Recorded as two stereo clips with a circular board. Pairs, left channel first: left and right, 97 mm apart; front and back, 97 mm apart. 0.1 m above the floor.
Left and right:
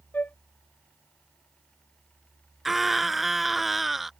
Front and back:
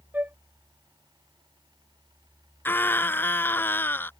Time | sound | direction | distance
0.1 | a flute | 135° left | ?
2.6 | a scream | 5° right | ?